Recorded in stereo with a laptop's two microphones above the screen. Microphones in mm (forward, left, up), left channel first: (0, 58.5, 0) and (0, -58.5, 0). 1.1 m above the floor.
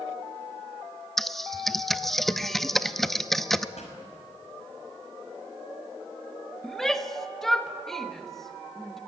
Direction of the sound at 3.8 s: 70° left (ahead or behind).